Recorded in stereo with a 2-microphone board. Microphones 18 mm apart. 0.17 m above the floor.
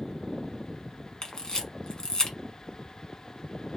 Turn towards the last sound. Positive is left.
turn(degrees=40)  # may be behind; listen again after turning